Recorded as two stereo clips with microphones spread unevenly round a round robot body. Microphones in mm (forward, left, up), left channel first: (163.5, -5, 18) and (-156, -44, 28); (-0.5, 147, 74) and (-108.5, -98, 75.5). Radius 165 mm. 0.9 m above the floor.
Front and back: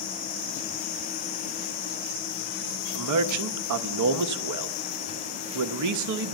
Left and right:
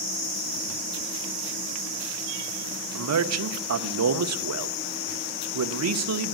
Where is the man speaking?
140° right, 0.8 m.